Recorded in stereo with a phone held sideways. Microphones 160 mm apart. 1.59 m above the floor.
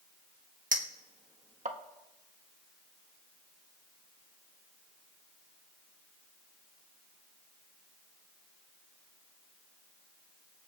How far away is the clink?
About 1.4 m.